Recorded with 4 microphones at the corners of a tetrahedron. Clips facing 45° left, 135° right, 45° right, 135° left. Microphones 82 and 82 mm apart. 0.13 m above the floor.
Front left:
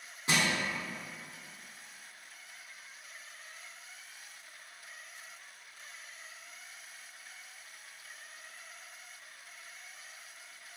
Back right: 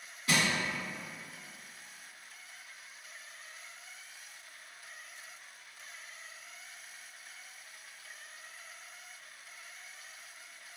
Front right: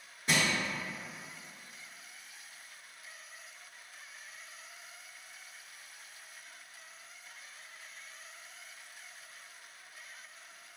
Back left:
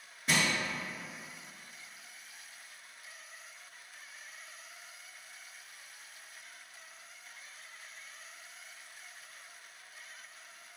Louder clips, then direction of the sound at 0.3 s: Even, even; 45° left.